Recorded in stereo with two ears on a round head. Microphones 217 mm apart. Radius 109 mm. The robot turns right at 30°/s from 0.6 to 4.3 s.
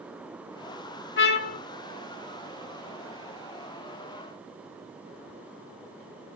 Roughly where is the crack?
I don't hear a crack.